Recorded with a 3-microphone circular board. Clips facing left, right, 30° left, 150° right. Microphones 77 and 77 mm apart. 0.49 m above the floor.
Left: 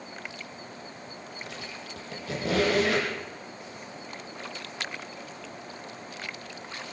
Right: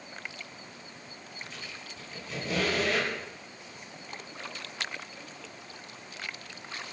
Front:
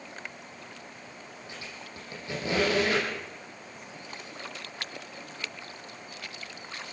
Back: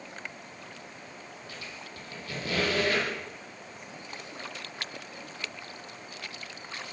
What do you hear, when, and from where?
1.5 s a squeak: 100° left, 9.5 m